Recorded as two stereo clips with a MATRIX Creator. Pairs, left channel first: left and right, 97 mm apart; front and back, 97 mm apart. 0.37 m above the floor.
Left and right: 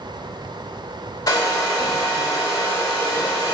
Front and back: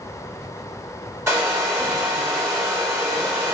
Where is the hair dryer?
125° left, 1.1 m.